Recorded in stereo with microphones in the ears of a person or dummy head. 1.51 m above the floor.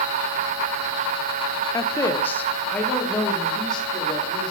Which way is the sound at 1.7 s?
20° left (ahead or behind).